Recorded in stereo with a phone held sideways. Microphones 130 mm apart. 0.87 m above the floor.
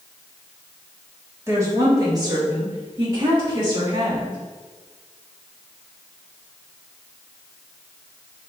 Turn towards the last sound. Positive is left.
turn(degrees=-40)  # may be behind; listen again after turning